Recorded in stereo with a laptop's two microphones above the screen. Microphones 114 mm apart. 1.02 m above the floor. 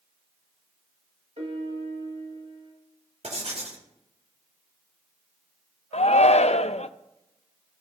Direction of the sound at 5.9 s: 65° left (ahead or behind).